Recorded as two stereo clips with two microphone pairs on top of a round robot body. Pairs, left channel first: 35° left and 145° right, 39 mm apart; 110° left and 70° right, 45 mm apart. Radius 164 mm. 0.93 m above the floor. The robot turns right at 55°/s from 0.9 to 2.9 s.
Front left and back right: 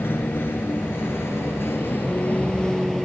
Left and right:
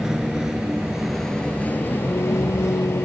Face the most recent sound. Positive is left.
turn(degrees=120)